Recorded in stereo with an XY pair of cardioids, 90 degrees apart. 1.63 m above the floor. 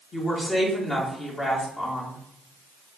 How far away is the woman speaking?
About 2.5 m.